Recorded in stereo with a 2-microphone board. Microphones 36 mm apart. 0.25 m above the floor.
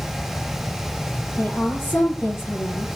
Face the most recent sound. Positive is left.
turn(degrees=80)